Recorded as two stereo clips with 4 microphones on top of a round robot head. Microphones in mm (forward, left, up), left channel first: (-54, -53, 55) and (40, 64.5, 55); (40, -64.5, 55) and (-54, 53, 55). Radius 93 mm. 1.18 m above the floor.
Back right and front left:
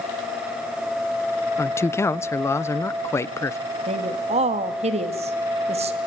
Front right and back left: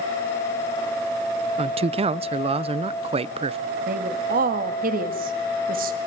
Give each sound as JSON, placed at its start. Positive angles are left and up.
{"t": 1.6, "sound": "a man speaking", "azimuth_deg": 165, "distance_m": 0.7}
{"t": 3.9, "sound": "a woman speaking", "azimuth_deg": 100, "distance_m": 2.0}